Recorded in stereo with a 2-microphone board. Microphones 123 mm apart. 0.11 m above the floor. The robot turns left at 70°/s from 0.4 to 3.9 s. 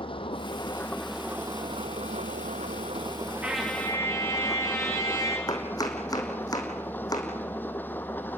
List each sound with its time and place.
0.0 s an engine running: 50° left, 1.3 m; by 8.4 s 165° left, 1.3 m
3.4 s a trumpet: 170° right, 3.5 m; by 5.4 s 155° left, 3.5 m
5.5 s chopping: 35° left (ahead or behind), 3 m